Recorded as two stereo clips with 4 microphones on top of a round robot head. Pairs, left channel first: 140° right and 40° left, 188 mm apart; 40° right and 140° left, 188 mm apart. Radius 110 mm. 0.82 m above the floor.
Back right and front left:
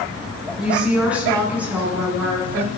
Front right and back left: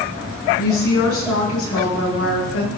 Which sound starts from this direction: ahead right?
A woman speaking, at 0.6 s.